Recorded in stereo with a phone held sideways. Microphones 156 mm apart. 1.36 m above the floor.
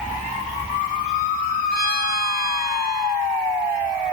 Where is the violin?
75° left (ahead or behind), 6 m.